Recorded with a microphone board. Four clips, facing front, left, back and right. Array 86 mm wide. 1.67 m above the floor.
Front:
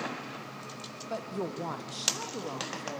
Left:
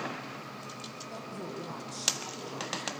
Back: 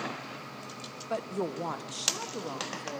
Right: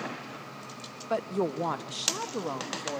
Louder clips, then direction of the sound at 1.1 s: Right 13 dB, back 3 dB; 105° right.